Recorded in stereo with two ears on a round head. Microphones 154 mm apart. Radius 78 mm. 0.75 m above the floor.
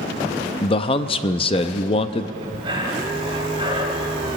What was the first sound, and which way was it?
A man speaking, 30° left (ahead or behind).